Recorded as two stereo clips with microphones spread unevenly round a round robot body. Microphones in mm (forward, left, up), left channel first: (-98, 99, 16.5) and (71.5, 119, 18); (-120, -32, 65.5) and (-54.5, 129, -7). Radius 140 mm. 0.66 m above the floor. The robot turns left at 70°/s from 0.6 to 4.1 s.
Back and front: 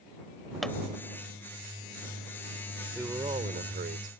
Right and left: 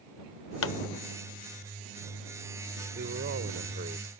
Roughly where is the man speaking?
Left.